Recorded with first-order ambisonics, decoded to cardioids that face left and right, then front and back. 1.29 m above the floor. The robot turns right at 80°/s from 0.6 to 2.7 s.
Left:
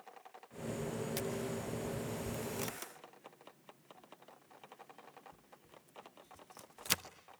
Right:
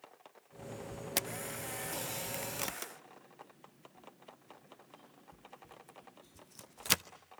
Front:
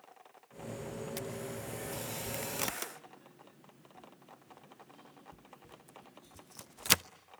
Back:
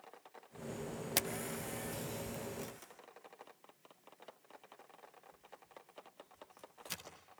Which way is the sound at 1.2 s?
140° right.